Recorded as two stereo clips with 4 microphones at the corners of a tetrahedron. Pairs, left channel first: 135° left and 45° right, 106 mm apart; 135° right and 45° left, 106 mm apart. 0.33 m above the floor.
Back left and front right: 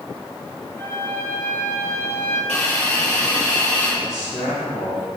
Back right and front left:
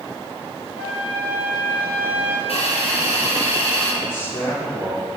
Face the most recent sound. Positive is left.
turn(degrees=-105)